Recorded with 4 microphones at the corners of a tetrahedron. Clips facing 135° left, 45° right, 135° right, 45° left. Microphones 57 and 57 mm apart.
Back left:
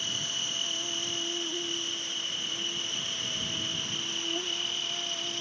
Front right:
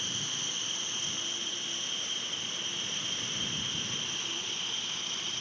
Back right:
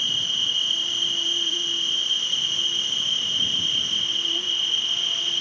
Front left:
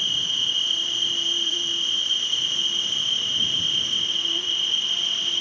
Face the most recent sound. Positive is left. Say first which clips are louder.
# back left 3 dB, even
turn(degrees=140)